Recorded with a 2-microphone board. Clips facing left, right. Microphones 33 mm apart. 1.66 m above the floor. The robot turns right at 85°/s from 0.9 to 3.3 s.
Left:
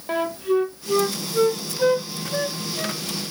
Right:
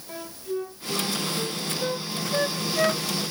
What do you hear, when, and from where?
0.1 s a flute: 55° left (ahead or behind), 0.8 m; by 3.2 s 70° right (ahead or behind), 0.8 m